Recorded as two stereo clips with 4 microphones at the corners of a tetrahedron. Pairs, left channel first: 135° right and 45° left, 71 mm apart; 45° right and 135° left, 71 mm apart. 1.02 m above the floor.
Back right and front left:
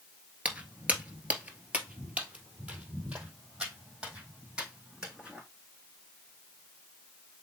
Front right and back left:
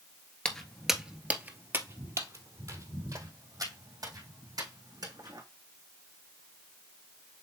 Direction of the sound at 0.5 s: 10° left.